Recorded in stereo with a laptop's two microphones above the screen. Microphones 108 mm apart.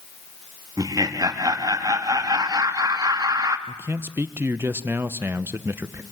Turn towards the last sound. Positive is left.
turn(degrees=-20)  # may be behind; listen again after turning